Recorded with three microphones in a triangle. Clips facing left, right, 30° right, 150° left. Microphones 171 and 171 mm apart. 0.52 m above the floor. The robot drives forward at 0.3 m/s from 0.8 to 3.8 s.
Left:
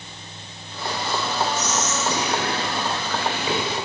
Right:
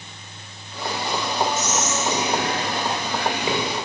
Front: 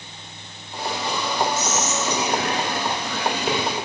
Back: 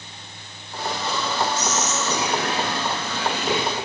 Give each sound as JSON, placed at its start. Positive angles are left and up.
{"t": 1.6, "sound": "whispering", "azimuth_deg": -55, "distance_m": 1.4}